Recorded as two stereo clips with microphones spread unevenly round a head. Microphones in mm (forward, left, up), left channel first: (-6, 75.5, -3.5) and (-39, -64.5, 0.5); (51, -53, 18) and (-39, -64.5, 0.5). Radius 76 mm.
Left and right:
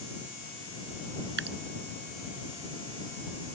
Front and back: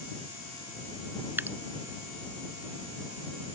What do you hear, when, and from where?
1.4 s dripping: 105° right